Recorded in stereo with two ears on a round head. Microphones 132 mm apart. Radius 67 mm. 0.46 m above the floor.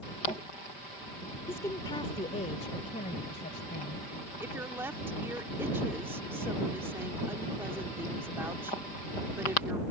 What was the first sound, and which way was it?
A woman speaking, 15° left (ahead or behind).